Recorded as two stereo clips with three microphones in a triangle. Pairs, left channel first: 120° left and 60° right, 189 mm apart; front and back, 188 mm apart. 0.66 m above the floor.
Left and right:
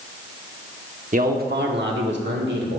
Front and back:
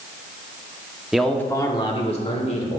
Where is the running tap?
No running tap in this recording.